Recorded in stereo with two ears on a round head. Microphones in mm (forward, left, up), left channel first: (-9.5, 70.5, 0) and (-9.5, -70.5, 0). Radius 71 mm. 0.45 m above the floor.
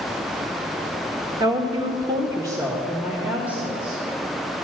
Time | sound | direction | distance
1.4 | a woman speaking | 25° right (ahead or behind) | 1.2 m